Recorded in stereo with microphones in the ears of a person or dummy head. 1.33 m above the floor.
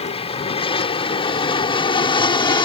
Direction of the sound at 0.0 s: 30° left (ahead or behind).